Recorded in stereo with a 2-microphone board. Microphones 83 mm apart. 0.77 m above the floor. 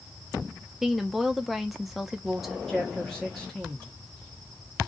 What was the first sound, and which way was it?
A woman speaking, centre (ahead or behind).